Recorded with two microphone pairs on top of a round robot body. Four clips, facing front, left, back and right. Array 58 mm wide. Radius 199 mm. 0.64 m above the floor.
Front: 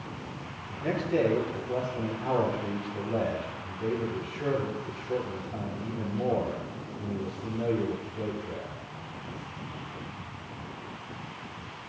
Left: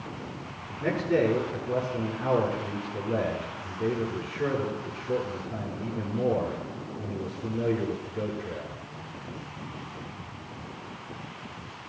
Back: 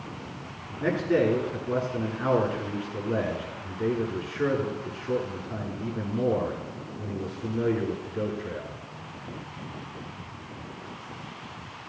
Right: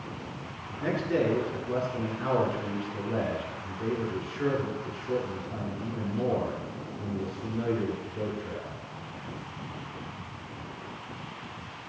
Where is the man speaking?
175° right, 9.5 m.